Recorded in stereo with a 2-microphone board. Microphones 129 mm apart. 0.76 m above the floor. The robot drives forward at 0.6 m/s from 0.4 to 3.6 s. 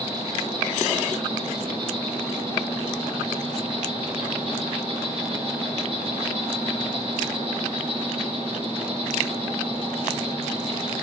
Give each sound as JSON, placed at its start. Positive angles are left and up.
{"t": 0.0, "sound": "an insect", "side_deg": -35, "distance_m": 4.5}